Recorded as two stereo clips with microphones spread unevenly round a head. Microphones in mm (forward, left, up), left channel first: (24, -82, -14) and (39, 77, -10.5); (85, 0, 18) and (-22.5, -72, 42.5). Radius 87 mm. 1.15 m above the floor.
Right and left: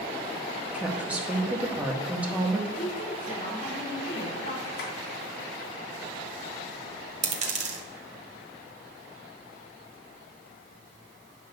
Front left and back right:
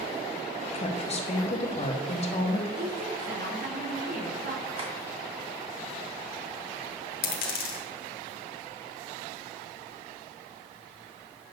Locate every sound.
0.7 s a woman speaking: straight ahead, 1.7 m
2.8 s a woman speaking: 155° right, 3.5 m
4.8 s tapping: 110° right, 3 m
7.2 s a dropped coin: 45° left, 1.4 m